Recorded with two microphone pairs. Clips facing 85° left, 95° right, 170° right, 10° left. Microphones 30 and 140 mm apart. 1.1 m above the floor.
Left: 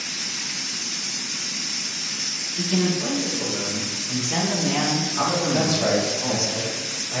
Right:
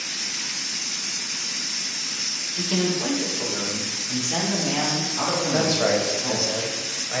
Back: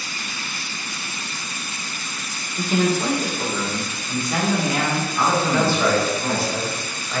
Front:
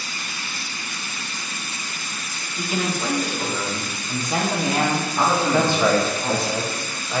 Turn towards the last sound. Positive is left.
turn(degrees=-55)